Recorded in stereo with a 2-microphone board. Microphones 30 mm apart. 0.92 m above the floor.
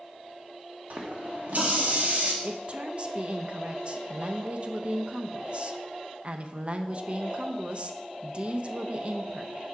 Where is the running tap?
55° right (ahead or behind), 1.1 m.